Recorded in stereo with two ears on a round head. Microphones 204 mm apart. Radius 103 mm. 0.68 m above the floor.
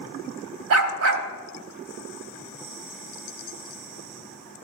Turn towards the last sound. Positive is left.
turn(degrees=-65)  # may be behind; listen again after turning